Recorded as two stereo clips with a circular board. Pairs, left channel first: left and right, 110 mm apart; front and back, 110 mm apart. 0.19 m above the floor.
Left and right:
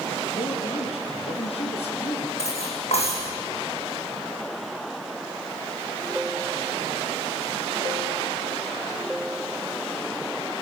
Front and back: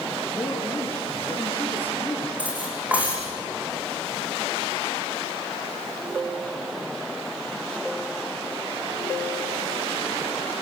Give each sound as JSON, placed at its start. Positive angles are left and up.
{"t": 0.3, "sound": "a man speaking", "azimuth_deg": 75, "distance_m": 3.5}
{"t": 2.4, "sound": "cutlery clinking", "azimuth_deg": 105, "distance_m": 8.0}